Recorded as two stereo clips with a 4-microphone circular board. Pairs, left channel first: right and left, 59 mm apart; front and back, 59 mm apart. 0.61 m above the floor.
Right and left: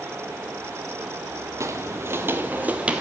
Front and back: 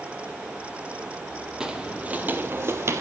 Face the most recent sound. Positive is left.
turn(degrees=160)